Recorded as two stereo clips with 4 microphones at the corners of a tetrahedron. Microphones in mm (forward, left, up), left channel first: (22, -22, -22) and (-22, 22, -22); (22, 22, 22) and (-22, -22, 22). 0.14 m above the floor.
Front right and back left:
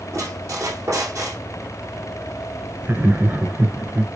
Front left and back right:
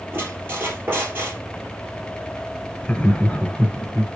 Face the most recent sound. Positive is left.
turn(degrees=100)